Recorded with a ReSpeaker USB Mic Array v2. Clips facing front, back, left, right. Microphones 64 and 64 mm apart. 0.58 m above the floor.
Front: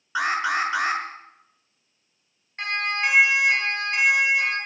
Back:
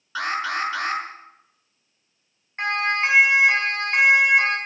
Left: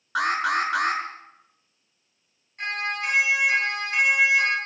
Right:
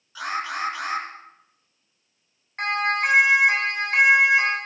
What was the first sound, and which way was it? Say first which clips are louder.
An alarm: front 2 dB, left 5 dB; 70° left.